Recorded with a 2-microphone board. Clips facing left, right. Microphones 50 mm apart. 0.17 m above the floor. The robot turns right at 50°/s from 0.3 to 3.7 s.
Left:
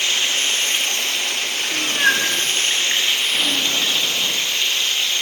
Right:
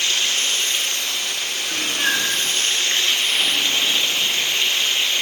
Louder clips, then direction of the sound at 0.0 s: Left 1 dB; 30° left.